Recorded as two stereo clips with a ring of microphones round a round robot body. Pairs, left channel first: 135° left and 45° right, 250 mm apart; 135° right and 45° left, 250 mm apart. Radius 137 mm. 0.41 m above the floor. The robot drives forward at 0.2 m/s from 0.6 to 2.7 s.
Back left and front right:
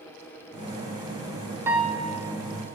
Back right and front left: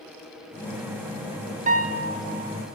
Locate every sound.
1.7 s a piano: 30° left, 0.8 m; by 2.1 s 35° left, 0.7 m